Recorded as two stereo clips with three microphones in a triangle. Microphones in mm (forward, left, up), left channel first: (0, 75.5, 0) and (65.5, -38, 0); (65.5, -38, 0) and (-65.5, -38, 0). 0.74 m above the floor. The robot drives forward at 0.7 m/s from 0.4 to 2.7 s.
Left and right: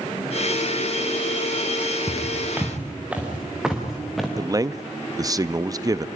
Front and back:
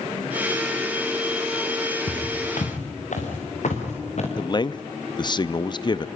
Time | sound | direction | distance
2.1 | footsteps | 10° left | 5 m
4.4 | a man speaking | 20° right | 0.7 m